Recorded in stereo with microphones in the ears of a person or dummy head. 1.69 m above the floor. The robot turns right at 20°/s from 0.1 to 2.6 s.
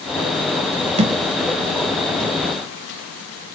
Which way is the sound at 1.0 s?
35° right (ahead or behind).